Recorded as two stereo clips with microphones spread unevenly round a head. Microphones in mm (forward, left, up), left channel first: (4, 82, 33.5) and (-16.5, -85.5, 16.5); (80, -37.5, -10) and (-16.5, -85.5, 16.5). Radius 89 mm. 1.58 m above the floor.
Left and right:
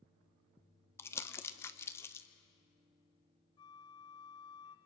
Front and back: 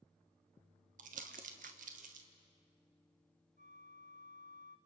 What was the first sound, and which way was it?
Crumpling, 160° left.